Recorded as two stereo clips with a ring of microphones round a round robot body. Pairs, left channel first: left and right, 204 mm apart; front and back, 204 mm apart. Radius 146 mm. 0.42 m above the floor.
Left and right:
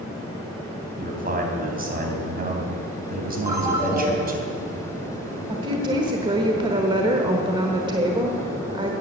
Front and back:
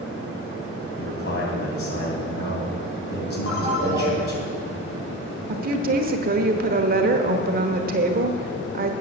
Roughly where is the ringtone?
Ahead.